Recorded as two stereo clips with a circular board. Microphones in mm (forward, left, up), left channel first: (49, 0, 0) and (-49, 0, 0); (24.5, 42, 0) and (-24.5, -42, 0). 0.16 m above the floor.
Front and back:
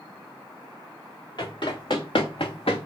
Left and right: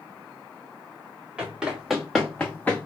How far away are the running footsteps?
About 1.5 m.